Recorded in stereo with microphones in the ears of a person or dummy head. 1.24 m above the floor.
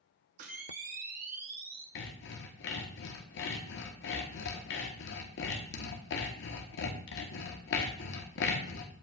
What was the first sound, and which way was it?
A camera shutter, 45° right (ahead or behind).